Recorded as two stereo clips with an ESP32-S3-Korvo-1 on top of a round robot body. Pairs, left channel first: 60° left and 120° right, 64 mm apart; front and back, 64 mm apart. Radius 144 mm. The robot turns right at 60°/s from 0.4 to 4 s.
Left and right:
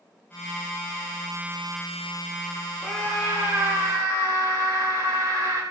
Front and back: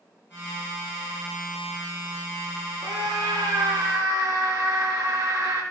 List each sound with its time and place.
2.8 s a scream: 150° left, 6 m; by 5.6 s 140° right, 6 m